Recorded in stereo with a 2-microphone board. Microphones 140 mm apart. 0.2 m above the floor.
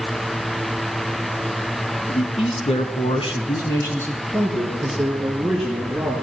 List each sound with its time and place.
2.1 s a man speaking: 45° left (ahead or behind), 2 m; by 6.1 s 5° right (ahead or behind), 4.5 m